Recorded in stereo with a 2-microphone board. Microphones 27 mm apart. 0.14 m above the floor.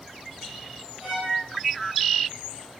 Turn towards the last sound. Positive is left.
turn(degrees=-45)  # may be behind; listen again after turning